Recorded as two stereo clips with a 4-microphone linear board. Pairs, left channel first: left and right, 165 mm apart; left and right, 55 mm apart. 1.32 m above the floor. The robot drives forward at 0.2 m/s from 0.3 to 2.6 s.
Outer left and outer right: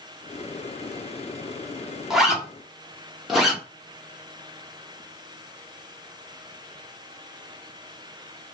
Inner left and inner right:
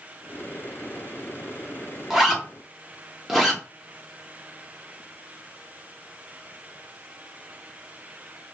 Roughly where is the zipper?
Centre.